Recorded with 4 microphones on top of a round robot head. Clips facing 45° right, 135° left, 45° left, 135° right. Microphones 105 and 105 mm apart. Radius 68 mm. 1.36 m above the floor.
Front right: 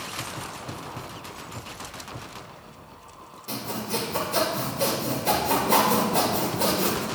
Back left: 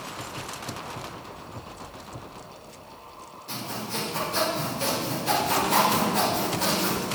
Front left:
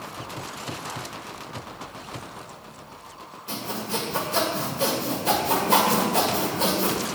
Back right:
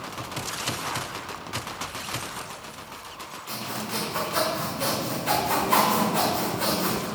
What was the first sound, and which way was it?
Sawing, 15° right.